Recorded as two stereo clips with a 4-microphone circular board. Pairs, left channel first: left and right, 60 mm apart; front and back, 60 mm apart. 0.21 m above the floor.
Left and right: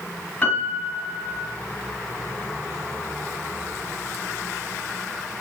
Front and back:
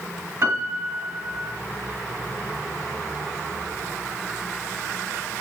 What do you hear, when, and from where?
0.4 s a piano: 155° left, 2.5 m